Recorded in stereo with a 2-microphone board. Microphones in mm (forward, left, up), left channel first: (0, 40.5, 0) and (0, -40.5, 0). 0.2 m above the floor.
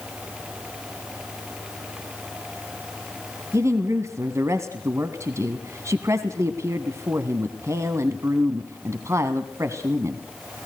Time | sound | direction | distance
3.5 | a woman speaking | 35° right (ahead or behind) | 1.3 m